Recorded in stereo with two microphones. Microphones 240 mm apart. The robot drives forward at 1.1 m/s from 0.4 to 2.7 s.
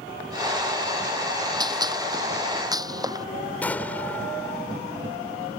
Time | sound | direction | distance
1.6 | a gunshot | 15° right (ahead or behind) | ?
3.6 | an explosion | 5° left (ahead or behind) | ?